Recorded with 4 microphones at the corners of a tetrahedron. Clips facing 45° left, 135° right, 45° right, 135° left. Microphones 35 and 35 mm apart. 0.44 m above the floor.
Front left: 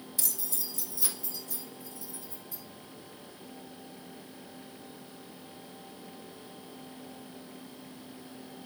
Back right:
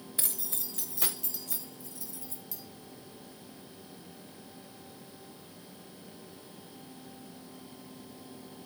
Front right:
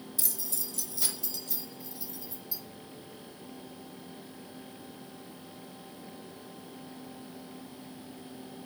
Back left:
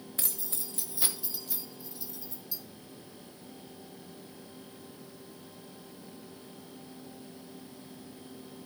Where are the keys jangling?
170° left, 1.3 m; by 2.6 s 130° right, 2.5 m.